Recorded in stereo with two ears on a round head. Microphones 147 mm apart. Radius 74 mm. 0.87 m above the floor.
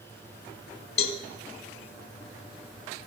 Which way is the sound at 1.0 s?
40° left (ahead or behind).